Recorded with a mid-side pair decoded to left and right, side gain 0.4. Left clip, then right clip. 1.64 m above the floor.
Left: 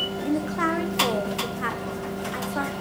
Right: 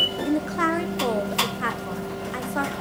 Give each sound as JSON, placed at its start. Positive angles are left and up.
{"t": 0.2, "sound": "a woman speaking", "azimuth_deg": -20, "distance_m": 1.3}